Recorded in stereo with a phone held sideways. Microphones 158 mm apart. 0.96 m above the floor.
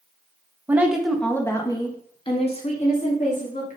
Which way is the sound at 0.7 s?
15° right (ahead or behind).